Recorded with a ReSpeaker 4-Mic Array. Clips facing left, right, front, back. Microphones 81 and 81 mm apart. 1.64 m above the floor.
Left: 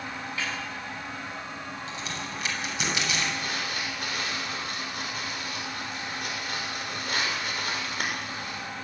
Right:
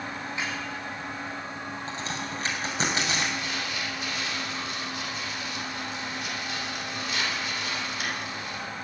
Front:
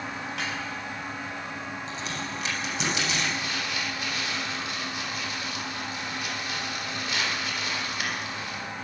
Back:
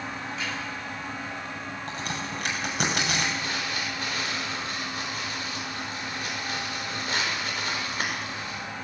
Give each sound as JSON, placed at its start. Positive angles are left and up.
{"t": 0.4, "sound": "a snare drum", "azimuth_deg": -20, "distance_m": 8.0}
{"t": 1.9, "sound": "a crack", "azimuth_deg": -140, "distance_m": 6.5}
{"t": 3.3, "sound": "crumpling", "azimuth_deg": 130, "distance_m": 7.0}